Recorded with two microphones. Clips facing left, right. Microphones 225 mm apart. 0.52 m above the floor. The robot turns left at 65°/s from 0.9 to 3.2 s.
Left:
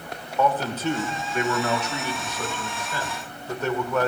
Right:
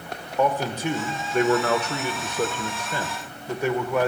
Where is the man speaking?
15° right, 1.4 m; by 4.1 s 165° right, 1.4 m.